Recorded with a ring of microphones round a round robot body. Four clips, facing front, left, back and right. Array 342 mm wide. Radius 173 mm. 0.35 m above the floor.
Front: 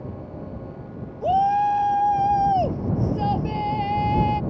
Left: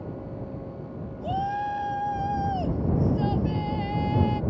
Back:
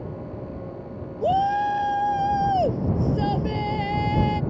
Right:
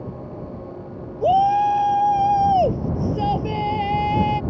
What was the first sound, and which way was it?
A shout, 120° right.